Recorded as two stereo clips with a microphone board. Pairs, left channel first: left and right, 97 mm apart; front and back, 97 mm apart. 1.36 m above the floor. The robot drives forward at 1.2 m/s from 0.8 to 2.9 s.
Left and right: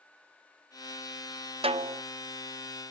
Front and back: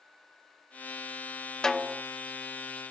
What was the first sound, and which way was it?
A snare drum, 85° right.